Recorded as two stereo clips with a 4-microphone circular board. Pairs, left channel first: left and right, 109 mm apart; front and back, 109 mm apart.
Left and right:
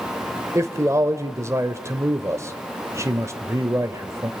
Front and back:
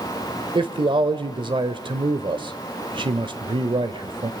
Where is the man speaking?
150° right, 1.4 m.